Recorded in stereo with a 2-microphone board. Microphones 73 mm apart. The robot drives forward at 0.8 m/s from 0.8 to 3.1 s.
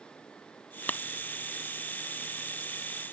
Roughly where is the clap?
Left.